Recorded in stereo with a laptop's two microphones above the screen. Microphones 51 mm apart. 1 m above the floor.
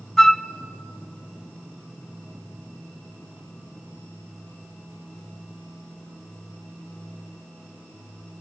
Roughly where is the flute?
Centre.